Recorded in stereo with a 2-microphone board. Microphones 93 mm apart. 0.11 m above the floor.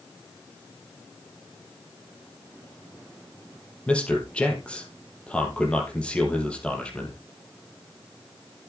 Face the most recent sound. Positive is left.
turn(degrees=10)  # may be behind; listen again after turning